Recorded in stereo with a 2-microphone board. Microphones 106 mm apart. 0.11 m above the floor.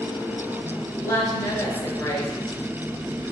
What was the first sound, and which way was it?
A woman speaking, 30° left (ahead or behind).